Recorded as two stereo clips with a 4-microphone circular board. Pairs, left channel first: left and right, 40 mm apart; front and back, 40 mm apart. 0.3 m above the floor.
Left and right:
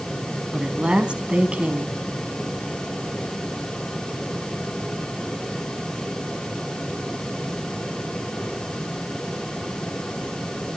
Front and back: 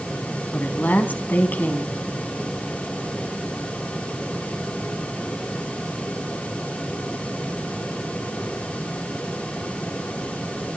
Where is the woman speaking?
35° right, 2.5 m.